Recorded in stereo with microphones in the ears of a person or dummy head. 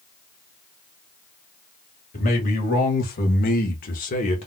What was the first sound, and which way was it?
A man speaking, 40° left (ahead or behind).